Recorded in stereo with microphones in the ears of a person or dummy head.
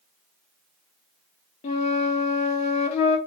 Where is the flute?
35° left (ahead or behind), 1.0 m.